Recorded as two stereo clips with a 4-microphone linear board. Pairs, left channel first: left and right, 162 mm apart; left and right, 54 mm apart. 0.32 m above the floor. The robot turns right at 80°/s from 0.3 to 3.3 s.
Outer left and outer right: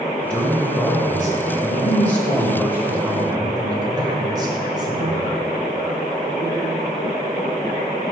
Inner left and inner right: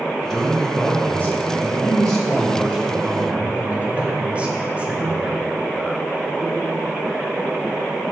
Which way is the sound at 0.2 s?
5° left (ahead or behind).